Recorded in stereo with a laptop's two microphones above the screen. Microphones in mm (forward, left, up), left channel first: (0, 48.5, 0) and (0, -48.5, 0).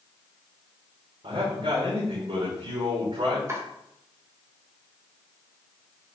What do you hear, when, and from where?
1.2 s a man speaking: 75° right (ahead or behind), 3.5 m
3.5 s chopping: 30° right (ahead or behind), 3 m